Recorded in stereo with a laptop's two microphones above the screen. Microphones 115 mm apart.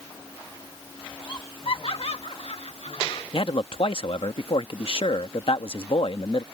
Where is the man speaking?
60° left (ahead or behind).